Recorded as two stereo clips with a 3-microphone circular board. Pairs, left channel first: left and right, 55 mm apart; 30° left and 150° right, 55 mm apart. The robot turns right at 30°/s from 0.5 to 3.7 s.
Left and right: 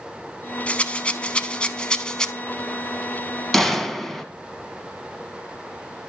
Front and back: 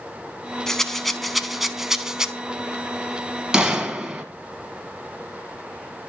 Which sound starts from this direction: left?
A rattle, at 0.7 s.